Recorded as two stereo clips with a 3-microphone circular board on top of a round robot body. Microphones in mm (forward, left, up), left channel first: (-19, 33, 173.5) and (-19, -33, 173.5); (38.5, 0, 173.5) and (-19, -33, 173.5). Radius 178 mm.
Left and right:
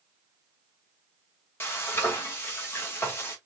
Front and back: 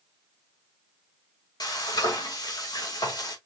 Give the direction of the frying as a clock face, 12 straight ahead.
11 o'clock.